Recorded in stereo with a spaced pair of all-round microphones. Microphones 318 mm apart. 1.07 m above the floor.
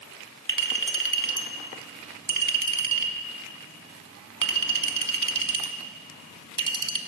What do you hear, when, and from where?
0.5 s a clink: 70° right (ahead or behind), 0.8 m